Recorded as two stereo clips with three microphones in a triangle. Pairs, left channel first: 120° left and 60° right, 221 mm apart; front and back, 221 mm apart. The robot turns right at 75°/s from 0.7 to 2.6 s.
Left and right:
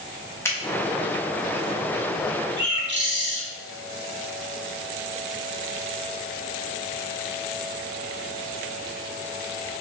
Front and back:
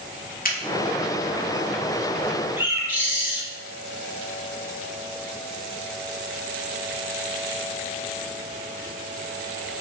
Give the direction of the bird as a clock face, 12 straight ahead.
3 o'clock.